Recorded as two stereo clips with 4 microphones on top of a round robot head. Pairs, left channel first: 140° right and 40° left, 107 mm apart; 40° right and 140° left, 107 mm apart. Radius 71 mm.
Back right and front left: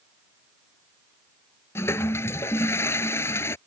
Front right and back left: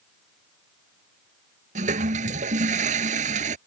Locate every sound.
1.8 s a toilet flushing: 150° left